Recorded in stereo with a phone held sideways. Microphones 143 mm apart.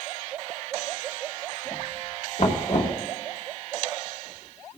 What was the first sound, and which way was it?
Knocking, 50° left (ahead or behind).